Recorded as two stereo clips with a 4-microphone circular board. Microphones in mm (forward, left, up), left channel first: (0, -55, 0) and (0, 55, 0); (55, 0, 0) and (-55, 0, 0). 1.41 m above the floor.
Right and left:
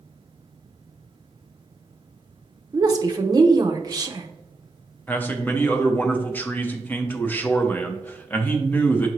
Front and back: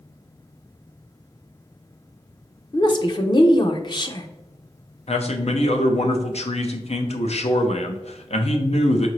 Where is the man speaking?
15° right, 0.7 m.